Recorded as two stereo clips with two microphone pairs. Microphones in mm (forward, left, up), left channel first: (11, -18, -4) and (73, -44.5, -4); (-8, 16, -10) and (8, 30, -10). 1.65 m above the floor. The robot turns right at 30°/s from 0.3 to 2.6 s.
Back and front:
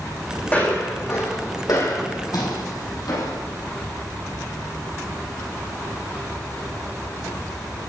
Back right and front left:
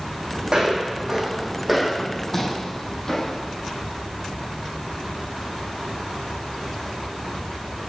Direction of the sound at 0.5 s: 90° left.